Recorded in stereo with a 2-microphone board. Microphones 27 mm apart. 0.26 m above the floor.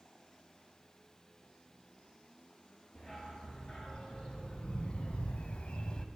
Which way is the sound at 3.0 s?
25° left (ahead or behind).